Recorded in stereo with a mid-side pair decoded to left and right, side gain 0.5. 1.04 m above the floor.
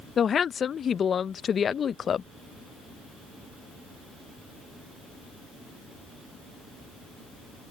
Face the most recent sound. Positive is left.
turn(degrees=45)